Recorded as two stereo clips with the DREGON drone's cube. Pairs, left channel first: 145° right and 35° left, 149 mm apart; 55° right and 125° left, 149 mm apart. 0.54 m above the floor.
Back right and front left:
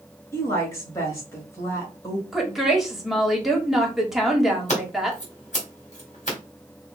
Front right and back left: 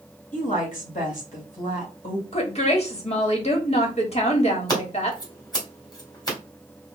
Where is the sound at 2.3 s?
55° right, 1.3 m.